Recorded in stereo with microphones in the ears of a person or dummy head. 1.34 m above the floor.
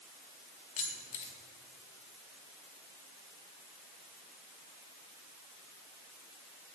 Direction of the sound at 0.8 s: 40° left (ahead or behind).